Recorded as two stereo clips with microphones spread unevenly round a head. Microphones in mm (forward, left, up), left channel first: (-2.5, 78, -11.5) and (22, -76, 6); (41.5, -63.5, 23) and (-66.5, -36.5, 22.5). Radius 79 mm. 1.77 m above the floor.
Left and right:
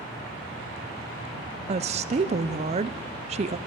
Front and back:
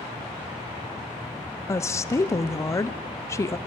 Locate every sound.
1.7 s a woman speaking: 70° right, 0.6 m